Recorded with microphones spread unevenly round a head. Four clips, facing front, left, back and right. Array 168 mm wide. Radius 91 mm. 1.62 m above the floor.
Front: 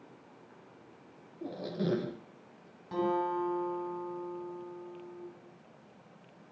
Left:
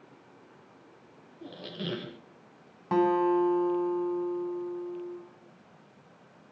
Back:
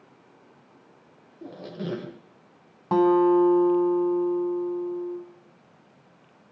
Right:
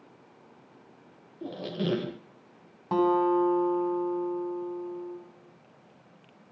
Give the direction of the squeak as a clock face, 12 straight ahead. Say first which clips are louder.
Right 7 dB, even; 1 o'clock.